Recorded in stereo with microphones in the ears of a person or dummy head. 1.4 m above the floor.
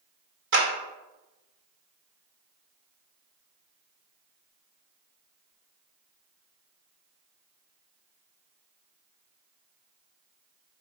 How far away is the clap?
About 2 m.